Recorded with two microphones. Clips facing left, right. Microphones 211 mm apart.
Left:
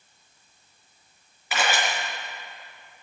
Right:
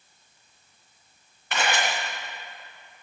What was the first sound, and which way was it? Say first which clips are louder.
A camera shutter: even; 5° left (ahead or behind).